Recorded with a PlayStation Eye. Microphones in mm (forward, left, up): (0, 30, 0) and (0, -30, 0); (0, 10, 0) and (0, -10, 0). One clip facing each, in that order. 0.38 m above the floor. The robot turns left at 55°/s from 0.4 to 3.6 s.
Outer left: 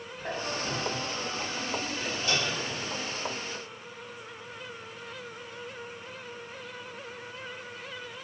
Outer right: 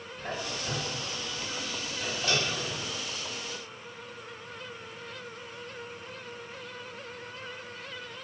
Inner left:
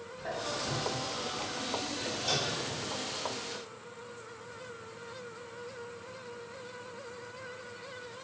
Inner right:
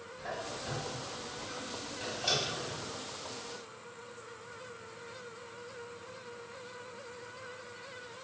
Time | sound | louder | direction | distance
0.2 | a squeak | outer left 2 dB, inner left 4 dB | 10° left (ahead or behind) | 1.1 m